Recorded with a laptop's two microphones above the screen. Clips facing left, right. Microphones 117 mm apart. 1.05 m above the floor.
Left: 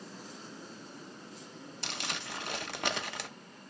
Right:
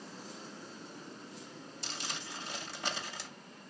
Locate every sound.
1.8 s crumpling: 65° left (ahead or behind), 0.7 m